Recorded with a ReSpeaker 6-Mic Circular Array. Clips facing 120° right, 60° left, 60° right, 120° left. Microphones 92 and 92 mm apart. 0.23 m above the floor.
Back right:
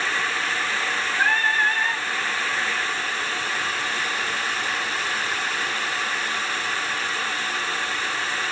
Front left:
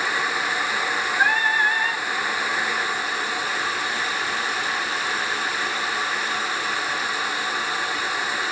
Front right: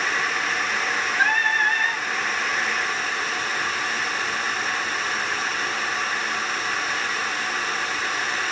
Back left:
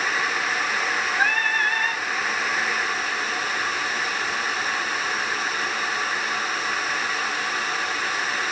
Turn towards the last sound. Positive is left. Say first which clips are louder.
# front left 1 dB, front right 2 dB
turn(degrees=0)